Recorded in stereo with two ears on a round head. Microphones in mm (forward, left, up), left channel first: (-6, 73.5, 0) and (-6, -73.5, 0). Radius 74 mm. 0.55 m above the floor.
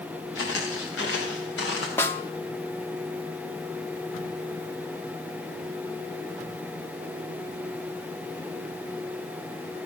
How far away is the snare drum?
About 0.8 m.